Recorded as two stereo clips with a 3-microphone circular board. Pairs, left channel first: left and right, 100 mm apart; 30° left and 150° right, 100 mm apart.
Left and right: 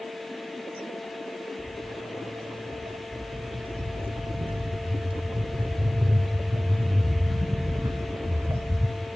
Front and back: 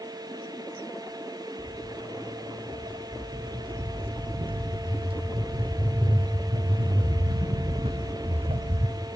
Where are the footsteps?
115° right, 8.5 m; by 8.9 s 160° right, 3 m.